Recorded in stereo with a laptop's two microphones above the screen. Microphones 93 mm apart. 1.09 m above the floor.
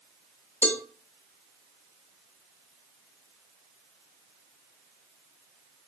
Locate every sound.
0.6 s a cowbell: 20° left (ahead or behind), 0.7 m